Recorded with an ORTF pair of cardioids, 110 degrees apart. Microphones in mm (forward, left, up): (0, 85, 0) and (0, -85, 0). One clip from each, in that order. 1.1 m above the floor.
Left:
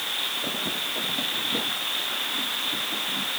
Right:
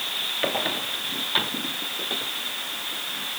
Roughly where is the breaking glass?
I don't hear breaking glass.